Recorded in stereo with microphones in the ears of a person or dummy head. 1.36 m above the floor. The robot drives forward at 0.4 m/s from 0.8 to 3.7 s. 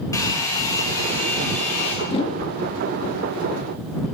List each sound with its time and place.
0.1 s a hair dryer: 20° left (ahead or behind), 1.8 m; by 1.9 s 15° left (ahead or behind), 2 m
2.0 s a whoosh: 30° left (ahead or behind), 1.3 m